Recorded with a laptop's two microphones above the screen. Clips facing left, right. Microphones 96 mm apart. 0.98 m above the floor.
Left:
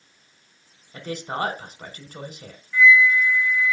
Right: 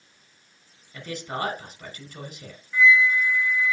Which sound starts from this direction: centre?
A flute, at 2.7 s.